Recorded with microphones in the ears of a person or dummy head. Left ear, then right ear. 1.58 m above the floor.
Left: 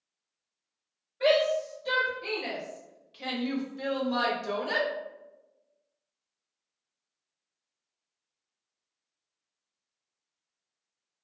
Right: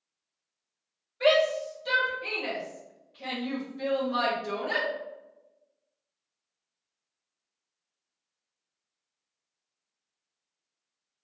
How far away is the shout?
About 1.6 m.